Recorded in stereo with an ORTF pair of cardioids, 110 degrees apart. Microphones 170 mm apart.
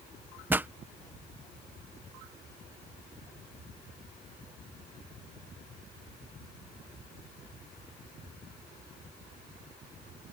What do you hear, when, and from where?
0.5 s a pop: 10° right